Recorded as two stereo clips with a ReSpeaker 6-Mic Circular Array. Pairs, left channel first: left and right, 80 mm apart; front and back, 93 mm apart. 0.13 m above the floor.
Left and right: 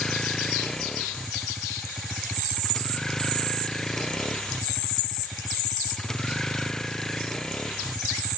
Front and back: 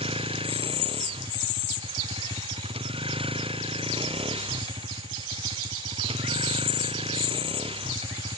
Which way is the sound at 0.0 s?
170° left.